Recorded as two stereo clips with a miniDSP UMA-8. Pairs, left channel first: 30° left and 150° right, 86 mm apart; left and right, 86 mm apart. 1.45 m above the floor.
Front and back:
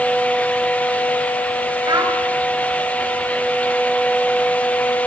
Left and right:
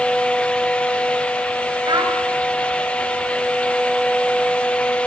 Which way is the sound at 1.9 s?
115° right.